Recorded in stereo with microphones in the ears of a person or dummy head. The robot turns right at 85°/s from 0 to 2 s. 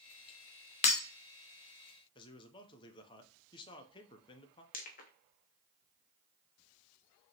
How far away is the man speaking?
About 0.6 m.